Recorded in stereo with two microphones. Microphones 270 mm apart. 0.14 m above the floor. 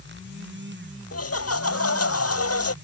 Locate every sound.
1.1 s laughter: 65° left (ahead or behind)